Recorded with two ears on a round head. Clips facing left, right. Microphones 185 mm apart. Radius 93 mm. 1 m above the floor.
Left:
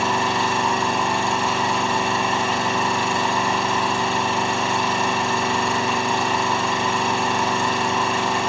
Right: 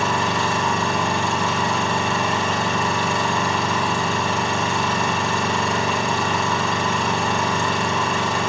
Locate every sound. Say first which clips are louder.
0.0 s an engine running: even; 70° right (ahead or behind), 8.5 m